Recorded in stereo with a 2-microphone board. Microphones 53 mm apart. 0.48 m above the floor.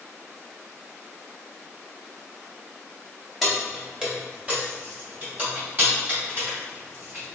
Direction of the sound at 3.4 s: Centre (ahead or behind).